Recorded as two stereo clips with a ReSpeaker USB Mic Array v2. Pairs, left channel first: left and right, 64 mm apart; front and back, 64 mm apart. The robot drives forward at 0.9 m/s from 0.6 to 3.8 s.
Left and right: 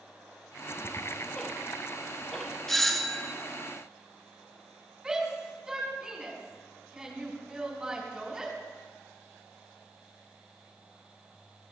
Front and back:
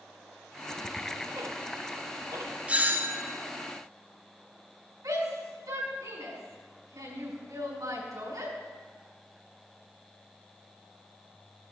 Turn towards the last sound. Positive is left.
turn(degrees=-165)